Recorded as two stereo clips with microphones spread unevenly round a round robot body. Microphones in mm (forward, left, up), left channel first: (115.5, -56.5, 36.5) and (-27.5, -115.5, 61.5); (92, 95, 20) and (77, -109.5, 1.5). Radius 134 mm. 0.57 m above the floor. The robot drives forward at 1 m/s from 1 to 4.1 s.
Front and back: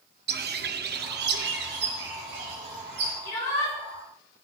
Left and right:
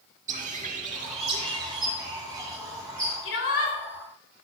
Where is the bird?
150° right, 0.7 m; by 3.1 s 175° right, 2.5 m.